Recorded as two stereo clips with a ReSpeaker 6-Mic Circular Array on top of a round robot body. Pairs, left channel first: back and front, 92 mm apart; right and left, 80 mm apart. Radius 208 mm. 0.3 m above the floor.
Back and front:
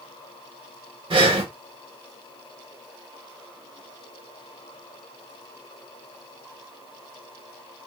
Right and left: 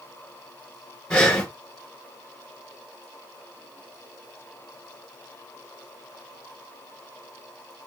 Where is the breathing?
10° right, 1.1 m.